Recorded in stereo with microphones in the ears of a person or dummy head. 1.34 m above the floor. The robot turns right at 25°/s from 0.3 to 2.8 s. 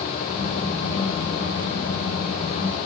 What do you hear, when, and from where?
Only background noise.